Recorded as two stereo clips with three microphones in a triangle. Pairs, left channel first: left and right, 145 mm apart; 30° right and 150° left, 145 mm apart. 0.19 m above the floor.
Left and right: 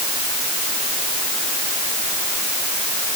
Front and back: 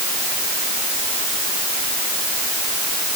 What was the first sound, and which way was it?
Only background noise.